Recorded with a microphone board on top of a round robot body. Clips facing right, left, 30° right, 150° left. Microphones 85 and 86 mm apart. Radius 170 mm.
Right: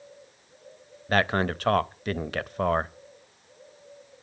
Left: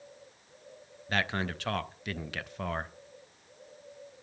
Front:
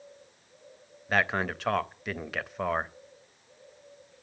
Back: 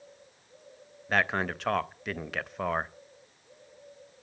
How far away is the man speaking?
About 0.7 m.